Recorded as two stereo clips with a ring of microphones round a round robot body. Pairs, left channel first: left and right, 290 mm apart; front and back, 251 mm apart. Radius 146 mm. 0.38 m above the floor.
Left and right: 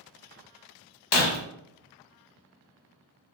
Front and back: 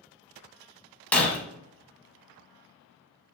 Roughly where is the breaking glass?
Left.